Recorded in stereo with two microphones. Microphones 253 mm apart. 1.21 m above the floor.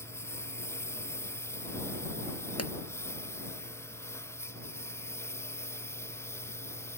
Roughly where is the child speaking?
I don't hear a child speaking.